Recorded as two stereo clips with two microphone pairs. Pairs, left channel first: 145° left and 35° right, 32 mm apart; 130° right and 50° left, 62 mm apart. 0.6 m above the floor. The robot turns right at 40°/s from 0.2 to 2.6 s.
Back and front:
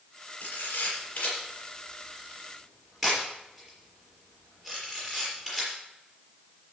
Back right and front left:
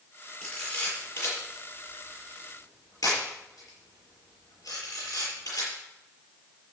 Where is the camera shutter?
155° left, 7 m; by 5.7 s 115° right, 7 m.